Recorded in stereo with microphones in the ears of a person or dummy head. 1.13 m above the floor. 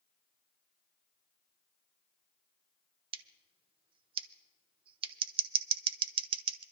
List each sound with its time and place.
3.1 s scissors: 35° right (ahead or behind), 1.0 m